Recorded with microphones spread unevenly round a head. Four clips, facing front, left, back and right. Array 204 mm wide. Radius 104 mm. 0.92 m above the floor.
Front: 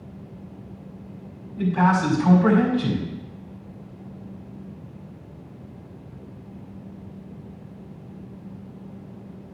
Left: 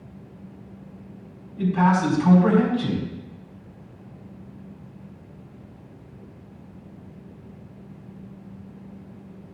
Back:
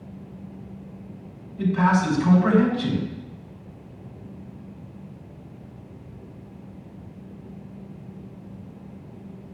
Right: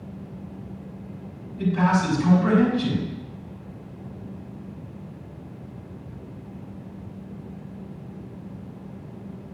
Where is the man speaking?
20° left, 5 m.